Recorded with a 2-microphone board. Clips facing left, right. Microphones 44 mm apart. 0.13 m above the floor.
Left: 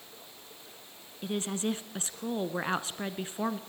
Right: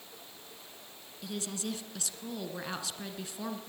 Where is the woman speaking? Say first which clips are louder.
Left 6 dB; 35° left (ahead or behind), 1.2 m.